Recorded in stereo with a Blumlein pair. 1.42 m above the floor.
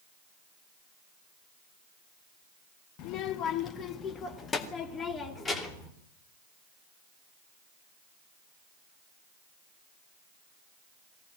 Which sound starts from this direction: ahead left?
A child speaking, at 3.0 s.